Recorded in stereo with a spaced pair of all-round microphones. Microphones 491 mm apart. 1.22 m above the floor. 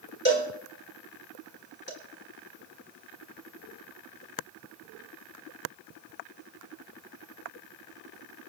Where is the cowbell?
20° left (ahead or behind), 3.5 m.